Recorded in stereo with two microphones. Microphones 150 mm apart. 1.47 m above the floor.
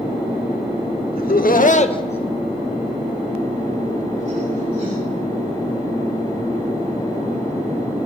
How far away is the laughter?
About 1.2 m.